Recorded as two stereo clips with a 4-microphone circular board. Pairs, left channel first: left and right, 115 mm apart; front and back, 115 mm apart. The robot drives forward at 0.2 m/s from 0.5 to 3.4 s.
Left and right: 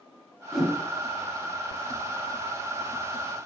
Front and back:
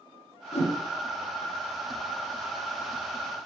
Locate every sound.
0.5 s a whoosh: straight ahead, 1.0 m